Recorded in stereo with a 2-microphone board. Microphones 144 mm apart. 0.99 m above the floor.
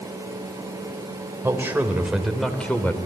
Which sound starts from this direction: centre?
A man speaking, at 1.4 s.